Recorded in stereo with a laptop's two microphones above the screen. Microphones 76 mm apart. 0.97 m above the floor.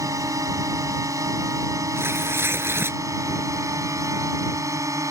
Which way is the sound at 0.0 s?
45° right (ahead or behind).